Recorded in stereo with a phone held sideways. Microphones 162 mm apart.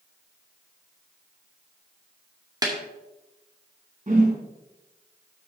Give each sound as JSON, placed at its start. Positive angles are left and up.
{"t": 2.6, "sound": "a snare drum", "side_deg": -25, "distance_m": 2.0}
{"t": 4.1, "sound": "a whoosh", "side_deg": -50, "distance_m": 2.5}